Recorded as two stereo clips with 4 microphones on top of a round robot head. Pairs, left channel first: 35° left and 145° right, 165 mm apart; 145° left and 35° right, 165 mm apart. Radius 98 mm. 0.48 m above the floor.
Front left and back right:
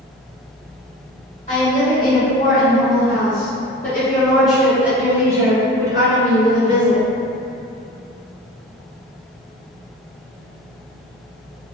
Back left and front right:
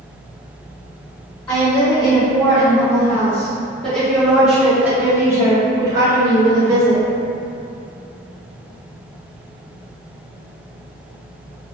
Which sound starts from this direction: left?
A woman speaking, at 1.5 s.